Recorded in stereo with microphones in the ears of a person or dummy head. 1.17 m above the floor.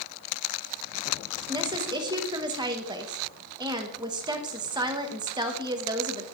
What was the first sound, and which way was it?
A woman speaking, 25° right (ahead or behind).